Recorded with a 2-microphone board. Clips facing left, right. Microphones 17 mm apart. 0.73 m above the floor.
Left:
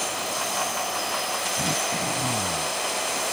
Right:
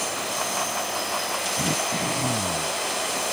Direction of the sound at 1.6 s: 10° right (ahead or behind).